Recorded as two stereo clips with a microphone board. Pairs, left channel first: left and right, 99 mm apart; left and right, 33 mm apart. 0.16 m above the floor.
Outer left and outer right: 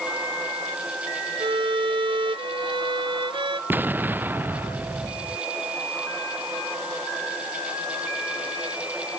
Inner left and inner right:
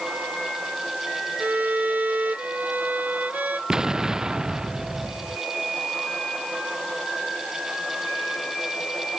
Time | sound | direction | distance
1.4 | a violin | 60° right (ahead or behind) | ?
3.7 | an explosion | 20° right (ahead or behind) | ?